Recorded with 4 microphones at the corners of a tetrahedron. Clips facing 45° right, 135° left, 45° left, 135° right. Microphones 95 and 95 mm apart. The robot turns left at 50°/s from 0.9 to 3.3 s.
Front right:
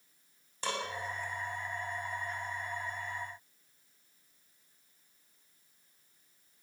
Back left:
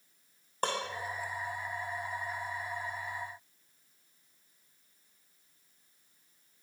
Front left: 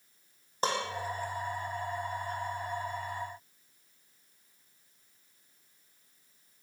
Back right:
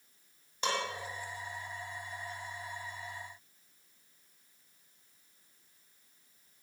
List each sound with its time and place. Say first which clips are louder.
0.6 s dishes clattering: back left 3 dB, front left 3 dB; 100° left, 6 m